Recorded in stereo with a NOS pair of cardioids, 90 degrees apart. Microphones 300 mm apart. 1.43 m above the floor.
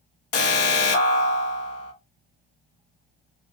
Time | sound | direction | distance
0.3 | an alarm | 50° left | 1.1 m